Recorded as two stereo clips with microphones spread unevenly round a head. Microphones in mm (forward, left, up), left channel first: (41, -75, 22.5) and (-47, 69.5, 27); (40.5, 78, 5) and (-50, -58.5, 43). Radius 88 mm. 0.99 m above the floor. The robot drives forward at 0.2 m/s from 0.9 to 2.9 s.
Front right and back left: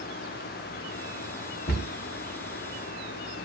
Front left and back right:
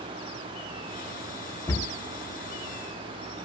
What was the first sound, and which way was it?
A cupboard door, 25° right.